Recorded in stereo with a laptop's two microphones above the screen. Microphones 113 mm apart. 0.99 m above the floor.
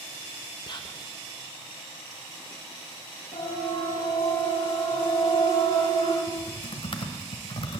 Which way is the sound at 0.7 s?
40° left (ahead or behind).